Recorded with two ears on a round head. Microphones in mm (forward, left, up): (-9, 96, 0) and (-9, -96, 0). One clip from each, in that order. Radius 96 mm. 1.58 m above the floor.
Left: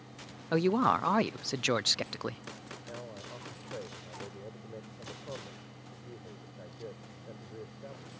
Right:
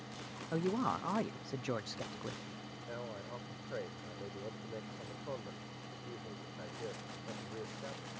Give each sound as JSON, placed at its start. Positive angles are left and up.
{"t": 0.5, "sound": "a woman speaking", "side_deg": 75}
{"t": 2.9, "sound": "a man speaking", "side_deg": -65}